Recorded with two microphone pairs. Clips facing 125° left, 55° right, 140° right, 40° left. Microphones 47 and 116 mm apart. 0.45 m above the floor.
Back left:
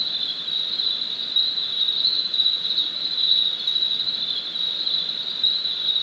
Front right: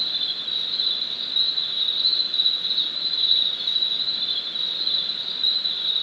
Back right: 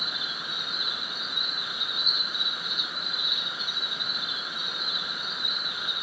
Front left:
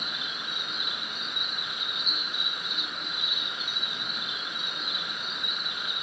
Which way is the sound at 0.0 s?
10° right.